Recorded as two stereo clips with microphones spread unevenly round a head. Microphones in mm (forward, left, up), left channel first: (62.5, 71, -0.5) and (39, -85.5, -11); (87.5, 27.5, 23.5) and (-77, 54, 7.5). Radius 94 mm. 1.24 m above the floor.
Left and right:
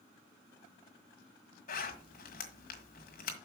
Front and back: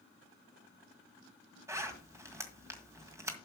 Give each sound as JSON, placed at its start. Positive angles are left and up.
{"t": 1.7, "sound": "a zipper", "azimuth_deg": 95, "distance_m": 1.8}